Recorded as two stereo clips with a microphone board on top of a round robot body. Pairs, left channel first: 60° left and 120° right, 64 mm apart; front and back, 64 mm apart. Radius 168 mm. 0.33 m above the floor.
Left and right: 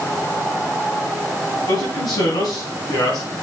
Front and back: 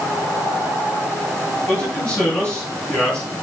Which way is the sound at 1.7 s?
65° left.